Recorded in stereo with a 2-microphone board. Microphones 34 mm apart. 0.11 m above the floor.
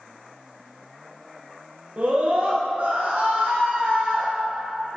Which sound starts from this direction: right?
A scream, at 2.0 s.